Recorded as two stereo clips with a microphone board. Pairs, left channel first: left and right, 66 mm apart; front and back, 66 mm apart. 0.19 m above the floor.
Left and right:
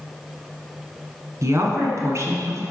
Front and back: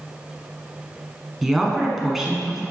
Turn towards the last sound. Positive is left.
turn(degrees=-95)